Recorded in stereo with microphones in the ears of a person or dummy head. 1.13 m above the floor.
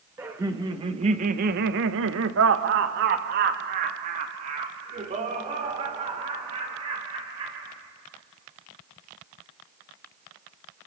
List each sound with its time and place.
0.2 s laughter: 15° right (ahead or behind), 1.9 m; by 7.7 s 25° right (ahead or behind), 6 m